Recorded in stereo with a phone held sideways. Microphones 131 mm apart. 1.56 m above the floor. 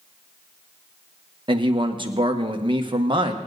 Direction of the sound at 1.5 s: 40° right (ahead or behind).